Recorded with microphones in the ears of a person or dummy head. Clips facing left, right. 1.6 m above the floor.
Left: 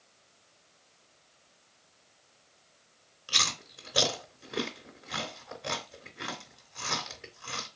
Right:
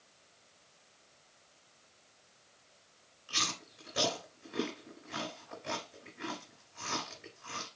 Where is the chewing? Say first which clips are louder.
Left 2 dB; 65° left (ahead or behind), 3.5 m.